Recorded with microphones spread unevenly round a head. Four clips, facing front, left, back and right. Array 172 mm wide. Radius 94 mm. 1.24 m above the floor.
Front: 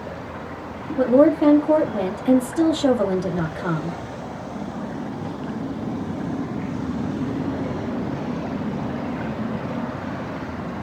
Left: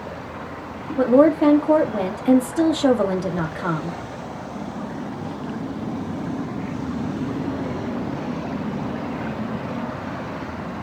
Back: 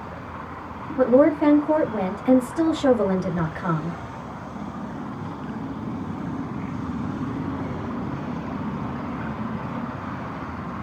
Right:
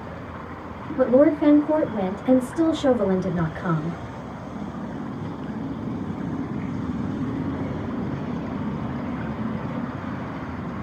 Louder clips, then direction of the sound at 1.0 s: Left 2 dB, front 1 dB; 115° left.